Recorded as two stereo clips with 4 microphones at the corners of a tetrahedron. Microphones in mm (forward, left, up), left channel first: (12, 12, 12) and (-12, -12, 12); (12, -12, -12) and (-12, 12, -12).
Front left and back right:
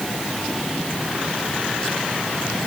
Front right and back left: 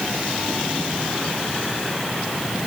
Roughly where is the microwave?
No microwave in this recording.